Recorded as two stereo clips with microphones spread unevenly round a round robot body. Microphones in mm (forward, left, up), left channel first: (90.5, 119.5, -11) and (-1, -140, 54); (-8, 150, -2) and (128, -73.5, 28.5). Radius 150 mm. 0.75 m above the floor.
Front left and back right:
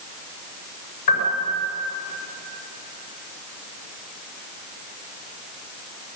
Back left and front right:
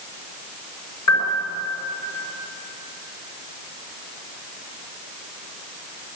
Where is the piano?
95° left, 7.5 m.